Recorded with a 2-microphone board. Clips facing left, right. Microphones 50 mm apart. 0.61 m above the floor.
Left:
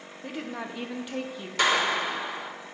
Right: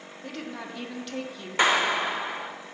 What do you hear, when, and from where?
0.2 s a woman speaking: 15° left (ahead or behind), 0.8 m
1.6 s a clap: 30° right (ahead or behind), 1.2 m